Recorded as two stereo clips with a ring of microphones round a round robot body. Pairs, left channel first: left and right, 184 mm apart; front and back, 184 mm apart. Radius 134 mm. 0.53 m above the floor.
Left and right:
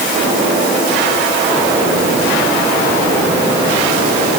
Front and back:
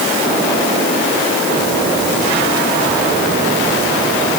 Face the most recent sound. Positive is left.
No sound to turn to.